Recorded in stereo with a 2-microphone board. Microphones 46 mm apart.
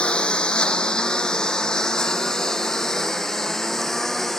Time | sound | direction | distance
0.0 | a lawn mower | 25° left (ahead or behind) | ?